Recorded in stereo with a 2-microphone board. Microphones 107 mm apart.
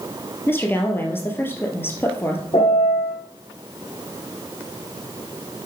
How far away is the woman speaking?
About 2 m.